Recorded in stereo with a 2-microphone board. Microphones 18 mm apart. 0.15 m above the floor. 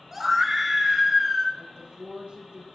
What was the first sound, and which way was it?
A scream, 20° right (ahead or behind).